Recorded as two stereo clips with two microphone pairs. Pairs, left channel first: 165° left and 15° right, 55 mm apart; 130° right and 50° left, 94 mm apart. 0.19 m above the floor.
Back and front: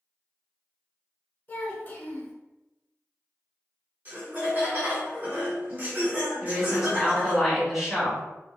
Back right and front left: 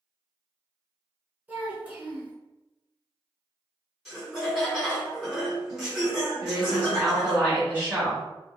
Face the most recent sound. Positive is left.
turn(degrees=60)